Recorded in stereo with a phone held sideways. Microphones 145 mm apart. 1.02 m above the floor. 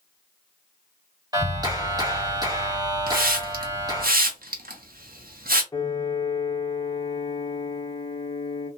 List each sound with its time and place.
1.3 s a clap: 25° right (ahead or behind), 1.3 m
3.1 s a hiss: 85° right, 0.6 m
5.7 s a piano: 25° left (ahead or behind), 0.9 m